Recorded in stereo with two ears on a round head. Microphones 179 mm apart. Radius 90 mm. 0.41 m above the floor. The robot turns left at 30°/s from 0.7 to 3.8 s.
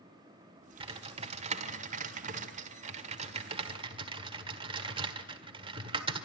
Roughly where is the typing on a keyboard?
Right.